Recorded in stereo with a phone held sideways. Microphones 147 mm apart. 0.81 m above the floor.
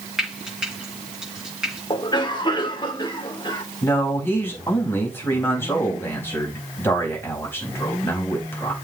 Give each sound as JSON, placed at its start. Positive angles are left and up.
{"t": 0.2, "sound": "frying", "side_deg": -5, "distance_m": 5.0}
{"t": 1.9, "sound": "a cough", "side_deg": 30, "distance_m": 2.5}
{"t": 3.8, "sound": "a man speaking", "side_deg": 15, "distance_m": 4.5}